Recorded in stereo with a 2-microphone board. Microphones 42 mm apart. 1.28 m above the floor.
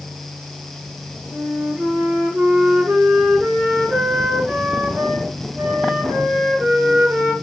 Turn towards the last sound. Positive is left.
turn(degrees=-40)  # may be behind; listen again after turning